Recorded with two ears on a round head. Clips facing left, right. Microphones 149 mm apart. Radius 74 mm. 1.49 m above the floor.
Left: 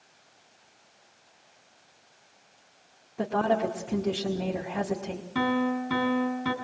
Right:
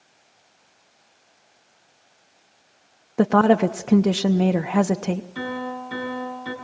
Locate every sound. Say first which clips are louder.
3.2 s a woman speaking: right 9 dB; 85° right, 0.7 m
5.3 s a piano: left 3 dB; 65° left (ahead or behind), 4 m